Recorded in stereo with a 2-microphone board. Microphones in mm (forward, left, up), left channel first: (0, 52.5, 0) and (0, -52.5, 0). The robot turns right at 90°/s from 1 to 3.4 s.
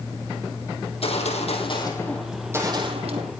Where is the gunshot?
65° left, 3.5 m; by 3.3 s 85° right, 3.5 m.